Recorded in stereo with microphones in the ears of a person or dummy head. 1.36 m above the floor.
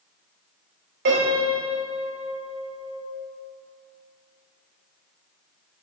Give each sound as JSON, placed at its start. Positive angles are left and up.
{"t": 1.1, "sound": "a piano", "side_deg": -50, "distance_m": 2.5}